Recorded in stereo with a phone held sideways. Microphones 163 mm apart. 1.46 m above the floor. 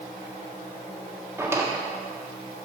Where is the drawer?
15° right (ahead or behind), 1.5 m.